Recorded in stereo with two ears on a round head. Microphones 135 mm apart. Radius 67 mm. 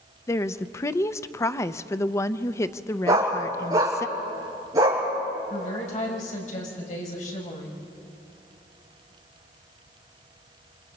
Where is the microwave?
No microwave in this recording.